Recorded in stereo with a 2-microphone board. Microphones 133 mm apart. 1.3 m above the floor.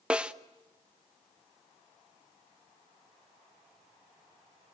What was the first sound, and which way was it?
A snare drum, 10° right (ahead or behind).